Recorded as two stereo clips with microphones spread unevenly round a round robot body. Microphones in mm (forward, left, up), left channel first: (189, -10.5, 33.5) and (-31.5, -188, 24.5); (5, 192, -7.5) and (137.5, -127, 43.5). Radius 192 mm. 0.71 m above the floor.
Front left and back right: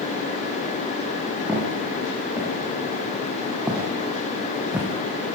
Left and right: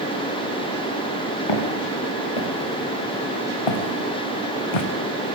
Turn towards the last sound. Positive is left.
turn(degrees=135)